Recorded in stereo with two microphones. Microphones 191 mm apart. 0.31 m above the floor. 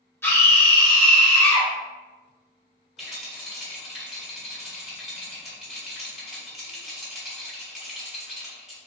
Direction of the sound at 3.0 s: Centre (ahead or behind).